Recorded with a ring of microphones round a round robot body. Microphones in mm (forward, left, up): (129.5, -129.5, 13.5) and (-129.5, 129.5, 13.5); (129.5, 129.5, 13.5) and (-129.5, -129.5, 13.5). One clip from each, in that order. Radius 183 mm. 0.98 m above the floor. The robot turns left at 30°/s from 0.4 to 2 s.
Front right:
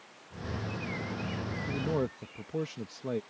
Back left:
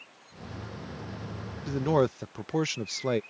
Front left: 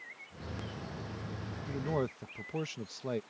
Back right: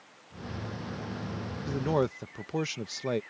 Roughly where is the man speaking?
Behind.